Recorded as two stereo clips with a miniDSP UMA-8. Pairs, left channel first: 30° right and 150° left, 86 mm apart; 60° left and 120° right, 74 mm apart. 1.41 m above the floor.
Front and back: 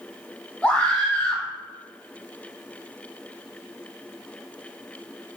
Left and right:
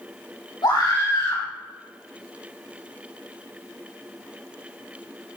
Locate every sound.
0.6 s a scream: 50° left, 4.5 m